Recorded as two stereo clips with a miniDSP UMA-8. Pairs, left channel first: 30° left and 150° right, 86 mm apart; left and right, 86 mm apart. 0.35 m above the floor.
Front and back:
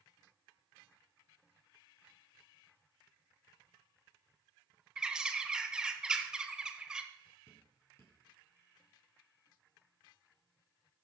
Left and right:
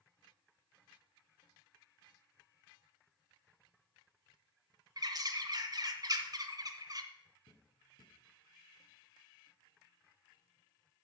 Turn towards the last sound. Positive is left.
turn(degrees=90)